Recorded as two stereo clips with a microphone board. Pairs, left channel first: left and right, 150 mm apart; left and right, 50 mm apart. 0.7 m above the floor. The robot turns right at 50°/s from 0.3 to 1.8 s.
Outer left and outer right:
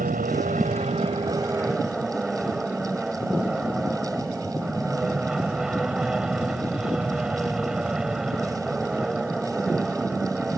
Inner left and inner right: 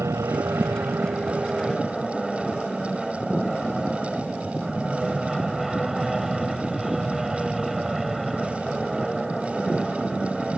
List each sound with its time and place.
0.0 s an aircraft: 80° right; by 10.6 s 5° right